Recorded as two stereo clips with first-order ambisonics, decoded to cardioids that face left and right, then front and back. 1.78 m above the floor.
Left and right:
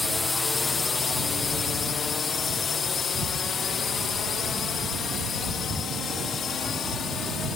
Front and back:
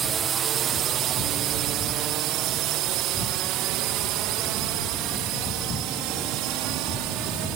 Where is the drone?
160° left; by 7.6 s 155° left.